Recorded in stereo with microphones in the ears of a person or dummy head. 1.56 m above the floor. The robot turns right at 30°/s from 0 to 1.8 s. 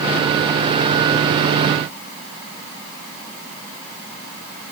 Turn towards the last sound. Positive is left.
No sound to turn to.